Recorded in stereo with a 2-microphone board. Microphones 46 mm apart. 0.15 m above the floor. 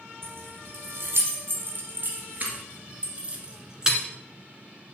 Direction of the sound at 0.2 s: 55° right (ahead or behind).